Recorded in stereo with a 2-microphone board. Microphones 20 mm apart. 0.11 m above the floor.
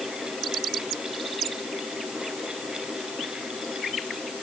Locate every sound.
Only background noise.